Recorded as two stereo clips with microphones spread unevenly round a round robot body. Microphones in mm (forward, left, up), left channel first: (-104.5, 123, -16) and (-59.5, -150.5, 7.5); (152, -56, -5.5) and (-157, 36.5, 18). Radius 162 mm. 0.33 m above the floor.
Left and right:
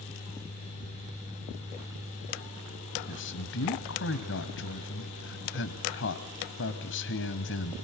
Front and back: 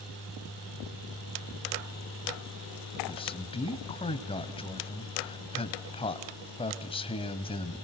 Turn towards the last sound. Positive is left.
turn(degrees=55)